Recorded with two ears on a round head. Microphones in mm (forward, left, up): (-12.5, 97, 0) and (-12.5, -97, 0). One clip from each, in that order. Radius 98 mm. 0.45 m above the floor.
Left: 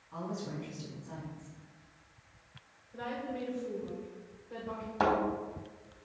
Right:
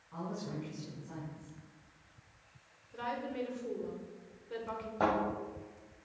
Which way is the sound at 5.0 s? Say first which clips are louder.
Left 2 dB; 40° left (ahead or behind).